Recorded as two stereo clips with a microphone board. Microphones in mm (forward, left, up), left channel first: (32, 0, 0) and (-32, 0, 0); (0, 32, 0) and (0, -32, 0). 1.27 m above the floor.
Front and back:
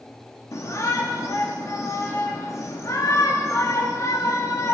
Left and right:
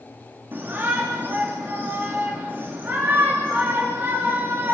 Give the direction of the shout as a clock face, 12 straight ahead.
1 o'clock.